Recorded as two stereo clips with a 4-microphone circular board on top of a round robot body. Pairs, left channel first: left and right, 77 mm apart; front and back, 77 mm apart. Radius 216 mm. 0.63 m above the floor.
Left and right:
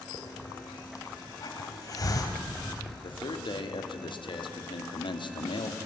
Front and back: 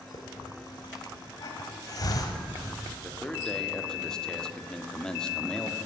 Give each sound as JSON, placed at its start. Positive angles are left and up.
{"t": 0.1, "sound": "a hiss", "azimuth_deg": 45, "distance_m": 1.6}
{"t": 3.0, "sound": "a man speaking", "azimuth_deg": 80, "distance_m": 1.9}